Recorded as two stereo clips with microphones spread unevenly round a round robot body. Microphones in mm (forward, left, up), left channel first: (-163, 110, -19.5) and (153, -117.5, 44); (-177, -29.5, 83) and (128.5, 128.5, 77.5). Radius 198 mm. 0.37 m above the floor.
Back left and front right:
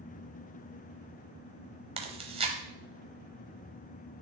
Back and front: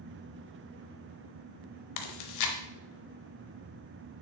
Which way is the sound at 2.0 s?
115° right.